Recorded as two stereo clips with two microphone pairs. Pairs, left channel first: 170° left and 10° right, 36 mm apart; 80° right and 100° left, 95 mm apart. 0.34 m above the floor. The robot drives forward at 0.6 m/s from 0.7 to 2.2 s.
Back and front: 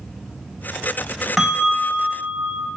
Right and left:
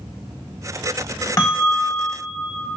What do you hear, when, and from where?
1.4 s a bell: 110° right, 0.8 m; by 2.7 s 140° right, 1.0 m